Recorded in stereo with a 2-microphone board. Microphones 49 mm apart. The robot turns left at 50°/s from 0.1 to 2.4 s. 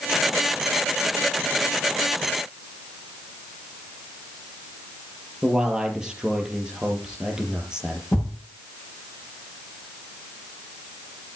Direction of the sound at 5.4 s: 15° right (ahead or behind).